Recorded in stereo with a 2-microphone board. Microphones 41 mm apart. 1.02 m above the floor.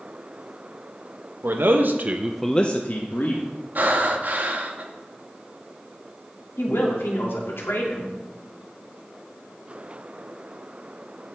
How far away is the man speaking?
About 1.2 m.